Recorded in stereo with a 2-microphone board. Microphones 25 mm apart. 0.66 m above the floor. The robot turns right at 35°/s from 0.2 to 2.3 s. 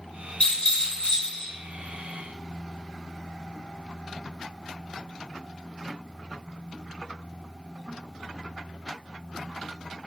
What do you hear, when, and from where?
0.4 s a rattle: 80° left, 1.8 m; by 1.5 s 120° left, 1.8 m